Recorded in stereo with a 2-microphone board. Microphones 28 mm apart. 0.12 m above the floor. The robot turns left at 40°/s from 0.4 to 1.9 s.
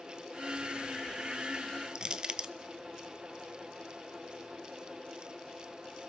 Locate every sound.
1.9 s crushing: 35° right (ahead or behind), 0.7 m